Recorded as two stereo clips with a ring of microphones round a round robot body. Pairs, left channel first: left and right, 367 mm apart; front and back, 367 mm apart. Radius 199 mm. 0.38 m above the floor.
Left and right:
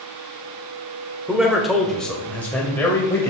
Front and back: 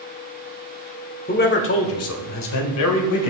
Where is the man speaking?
5° right, 1.2 m; by 3.3 s 10° left, 2 m.